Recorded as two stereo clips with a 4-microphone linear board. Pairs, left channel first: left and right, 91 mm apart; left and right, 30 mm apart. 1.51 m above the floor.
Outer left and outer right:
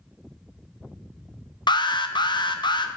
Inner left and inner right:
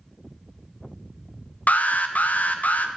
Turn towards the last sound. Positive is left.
turn(degrees=55)  # may be behind; listen again after turning